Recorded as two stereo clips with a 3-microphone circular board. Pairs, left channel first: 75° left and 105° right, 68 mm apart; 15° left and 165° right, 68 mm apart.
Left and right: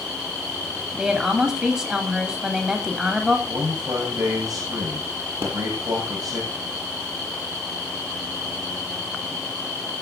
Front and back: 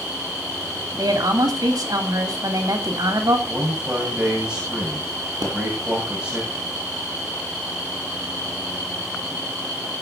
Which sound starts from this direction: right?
A man speaking, at 3.5 s.